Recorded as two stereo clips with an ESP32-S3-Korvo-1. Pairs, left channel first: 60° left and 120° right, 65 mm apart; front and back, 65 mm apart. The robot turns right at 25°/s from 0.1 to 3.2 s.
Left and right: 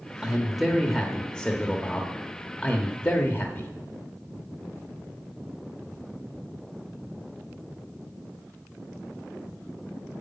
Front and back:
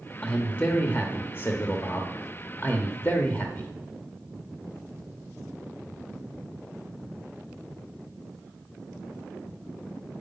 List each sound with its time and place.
0.2 s a man speaking: 40° right, 1.0 m; by 3.7 s 35° left, 1.0 m